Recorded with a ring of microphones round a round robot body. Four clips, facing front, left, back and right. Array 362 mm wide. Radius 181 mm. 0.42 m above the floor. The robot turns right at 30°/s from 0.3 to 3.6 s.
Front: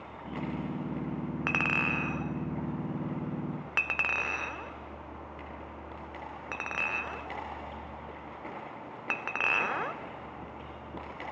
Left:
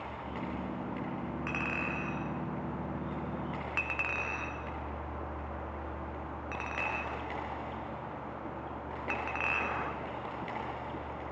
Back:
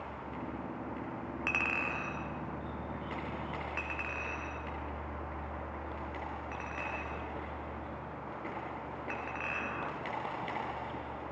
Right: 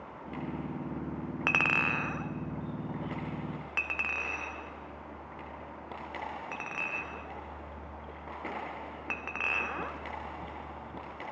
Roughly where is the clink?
Right.